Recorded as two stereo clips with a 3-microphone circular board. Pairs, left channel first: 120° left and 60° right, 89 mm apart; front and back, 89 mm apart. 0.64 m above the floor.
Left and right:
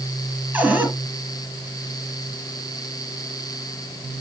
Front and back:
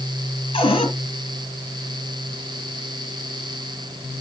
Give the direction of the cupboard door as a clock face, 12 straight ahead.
12 o'clock.